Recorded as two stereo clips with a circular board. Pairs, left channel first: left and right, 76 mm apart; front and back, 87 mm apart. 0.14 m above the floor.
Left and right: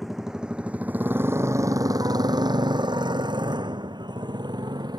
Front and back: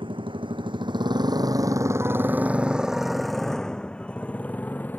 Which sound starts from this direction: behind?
A motorcycle, at 0.0 s.